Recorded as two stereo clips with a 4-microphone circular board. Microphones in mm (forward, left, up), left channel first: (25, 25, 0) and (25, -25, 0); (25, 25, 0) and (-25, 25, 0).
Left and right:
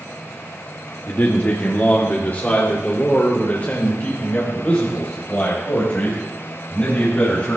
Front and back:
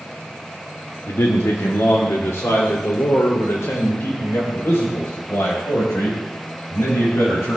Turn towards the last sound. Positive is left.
turn(degrees=25)